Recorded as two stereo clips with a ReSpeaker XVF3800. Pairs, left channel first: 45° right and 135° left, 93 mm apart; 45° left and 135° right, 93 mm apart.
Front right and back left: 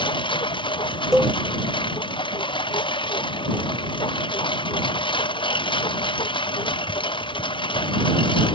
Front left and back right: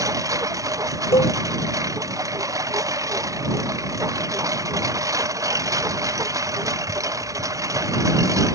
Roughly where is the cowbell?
Ahead left.